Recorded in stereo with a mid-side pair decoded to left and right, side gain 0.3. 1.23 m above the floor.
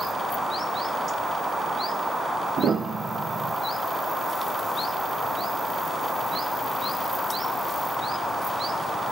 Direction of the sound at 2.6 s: 70° right.